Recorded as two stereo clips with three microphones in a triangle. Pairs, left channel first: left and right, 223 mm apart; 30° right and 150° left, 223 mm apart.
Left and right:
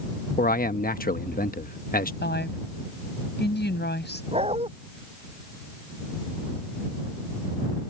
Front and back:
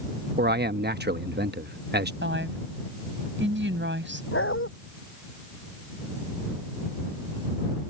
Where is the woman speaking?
125° left.